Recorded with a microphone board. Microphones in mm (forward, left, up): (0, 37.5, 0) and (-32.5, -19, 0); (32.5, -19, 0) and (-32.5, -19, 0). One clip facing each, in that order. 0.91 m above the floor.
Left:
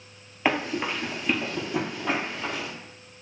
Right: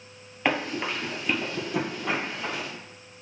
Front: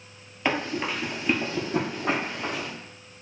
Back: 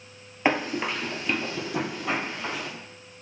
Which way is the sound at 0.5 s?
145° left.